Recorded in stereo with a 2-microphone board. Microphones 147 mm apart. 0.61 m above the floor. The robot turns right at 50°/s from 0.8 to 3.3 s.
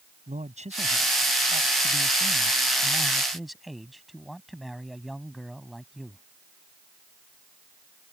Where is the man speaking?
125° right; by 6.2 s straight ahead.